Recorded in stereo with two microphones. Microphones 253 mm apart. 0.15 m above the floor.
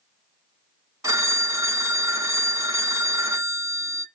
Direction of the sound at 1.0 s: 15° right (ahead or behind).